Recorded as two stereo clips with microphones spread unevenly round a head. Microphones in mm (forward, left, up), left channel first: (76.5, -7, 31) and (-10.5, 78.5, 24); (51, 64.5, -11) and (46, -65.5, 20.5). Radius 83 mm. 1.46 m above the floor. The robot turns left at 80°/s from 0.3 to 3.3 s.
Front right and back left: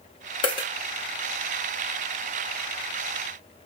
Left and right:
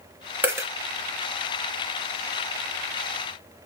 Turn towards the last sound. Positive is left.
turn(degrees=80)